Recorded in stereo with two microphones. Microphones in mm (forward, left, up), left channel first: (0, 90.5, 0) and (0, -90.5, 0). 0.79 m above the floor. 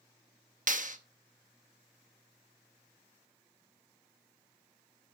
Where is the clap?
45° right (ahead or behind), 0.9 m.